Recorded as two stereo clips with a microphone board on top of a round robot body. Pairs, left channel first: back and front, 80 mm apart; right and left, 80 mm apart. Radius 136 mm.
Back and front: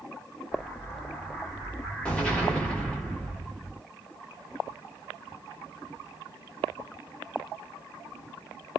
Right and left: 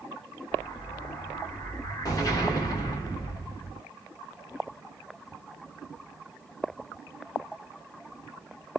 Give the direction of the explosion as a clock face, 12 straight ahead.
4 o'clock.